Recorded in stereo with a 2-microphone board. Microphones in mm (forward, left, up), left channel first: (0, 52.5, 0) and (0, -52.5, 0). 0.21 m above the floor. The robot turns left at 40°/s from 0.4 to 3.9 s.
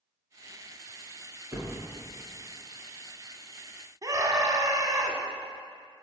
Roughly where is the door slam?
Right.